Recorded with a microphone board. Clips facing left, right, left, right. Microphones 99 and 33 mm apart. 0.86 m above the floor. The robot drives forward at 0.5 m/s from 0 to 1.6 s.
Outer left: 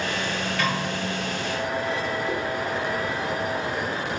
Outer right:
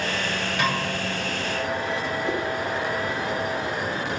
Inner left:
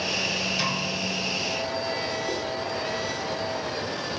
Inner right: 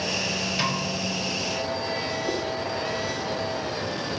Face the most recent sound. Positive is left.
turn(degrees=-25)  # may be behind; listen again after turning